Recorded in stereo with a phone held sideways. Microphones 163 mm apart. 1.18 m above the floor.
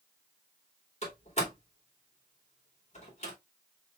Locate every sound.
1.0 s a door slam: 45° left (ahead or behind), 2.5 m